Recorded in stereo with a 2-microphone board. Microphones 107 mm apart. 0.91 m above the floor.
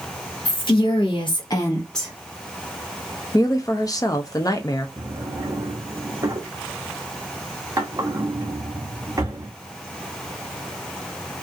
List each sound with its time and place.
0.5 s a woman speaking: 45° left (ahead or behind), 1.5 m; by 2.1 s 5° right (ahead or behind), 0.9 m
3.3 s a woman speaking: 35° left (ahead or behind), 0.6 m
5.0 s a drawer: 30° right (ahead or behind), 0.7 m